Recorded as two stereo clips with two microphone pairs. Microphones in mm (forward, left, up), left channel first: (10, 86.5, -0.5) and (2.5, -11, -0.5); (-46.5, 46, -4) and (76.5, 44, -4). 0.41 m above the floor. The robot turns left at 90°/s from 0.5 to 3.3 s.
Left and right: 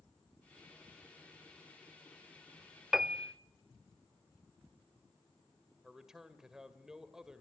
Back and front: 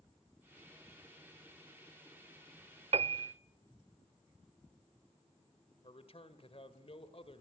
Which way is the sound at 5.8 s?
Straight behind.